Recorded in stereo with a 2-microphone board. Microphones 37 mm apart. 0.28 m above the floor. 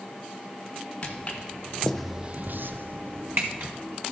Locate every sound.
1.0 s footsteps: 30° left (ahead or behind), 1.9 m; by 3.7 s 60° right (ahead or behind), 2.0 m